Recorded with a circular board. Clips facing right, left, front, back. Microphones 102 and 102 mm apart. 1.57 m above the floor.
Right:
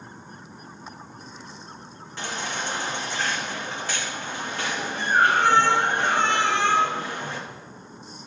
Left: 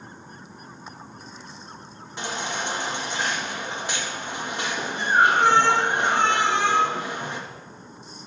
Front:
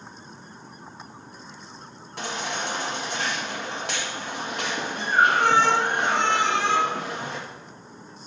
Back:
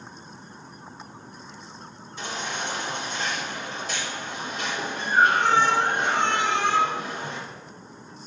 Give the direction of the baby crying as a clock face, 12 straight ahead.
11 o'clock.